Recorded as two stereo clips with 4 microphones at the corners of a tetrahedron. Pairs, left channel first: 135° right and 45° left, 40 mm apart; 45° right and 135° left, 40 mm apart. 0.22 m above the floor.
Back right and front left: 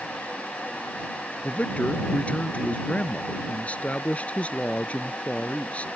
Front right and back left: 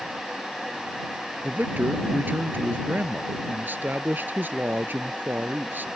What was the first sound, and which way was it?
A man speaking, 170° left.